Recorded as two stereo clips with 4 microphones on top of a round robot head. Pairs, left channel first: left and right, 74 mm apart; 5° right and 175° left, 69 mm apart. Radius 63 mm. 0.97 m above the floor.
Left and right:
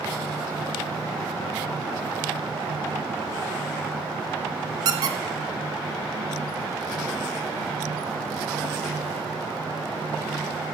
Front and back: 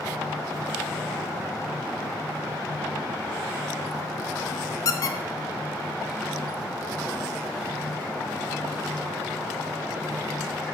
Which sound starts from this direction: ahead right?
A squeak, at 4.8 s.